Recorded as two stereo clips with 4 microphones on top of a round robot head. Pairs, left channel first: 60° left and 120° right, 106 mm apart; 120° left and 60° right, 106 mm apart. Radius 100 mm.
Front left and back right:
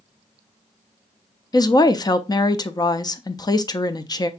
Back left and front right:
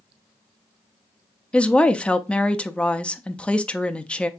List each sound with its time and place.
1.5 s a woman speaking: 50° left, 0.8 m